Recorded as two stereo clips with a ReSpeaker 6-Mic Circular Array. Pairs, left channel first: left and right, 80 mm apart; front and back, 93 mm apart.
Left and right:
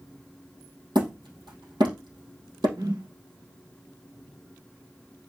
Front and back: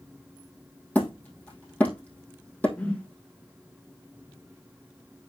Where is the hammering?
75° right, 3 m.